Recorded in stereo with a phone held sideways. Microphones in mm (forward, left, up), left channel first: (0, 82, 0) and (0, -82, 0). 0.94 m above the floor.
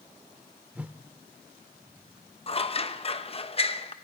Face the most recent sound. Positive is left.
turn(degrees=35)  # may be behind; listen again after turning